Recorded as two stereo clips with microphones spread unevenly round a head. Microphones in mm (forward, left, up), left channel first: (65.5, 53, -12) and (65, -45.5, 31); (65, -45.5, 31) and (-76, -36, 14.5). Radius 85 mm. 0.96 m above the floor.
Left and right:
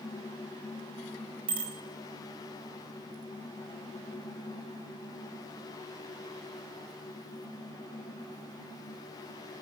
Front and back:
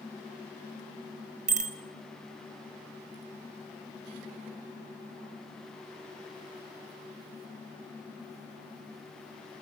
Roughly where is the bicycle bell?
Behind right.